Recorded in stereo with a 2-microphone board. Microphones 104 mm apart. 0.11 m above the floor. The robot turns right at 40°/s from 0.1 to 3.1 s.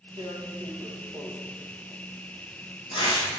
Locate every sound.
0.2 s tearing paper: 45° right (ahead or behind), 5 m; by 3.3 s 65° left (ahead or behind), 5 m